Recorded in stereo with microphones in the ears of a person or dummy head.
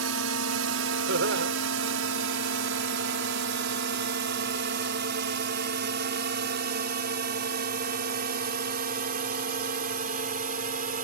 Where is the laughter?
70° right (ahead or behind).